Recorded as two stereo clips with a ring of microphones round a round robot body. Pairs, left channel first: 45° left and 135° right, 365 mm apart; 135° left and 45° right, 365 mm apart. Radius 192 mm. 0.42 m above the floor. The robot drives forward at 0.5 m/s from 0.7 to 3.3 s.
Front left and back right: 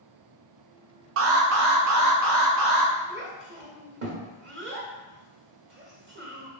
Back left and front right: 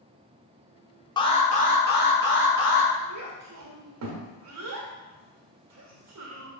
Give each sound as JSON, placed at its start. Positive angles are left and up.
{"t": 1.2, "sound": "an alarm", "azimuth_deg": -155, "distance_m": 0.7}
{"t": 3.1, "sound": "a child speaking", "azimuth_deg": -75, "distance_m": 1.2}